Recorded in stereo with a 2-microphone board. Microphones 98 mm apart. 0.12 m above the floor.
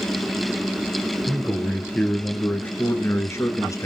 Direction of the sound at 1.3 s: 5° left (ahead or behind).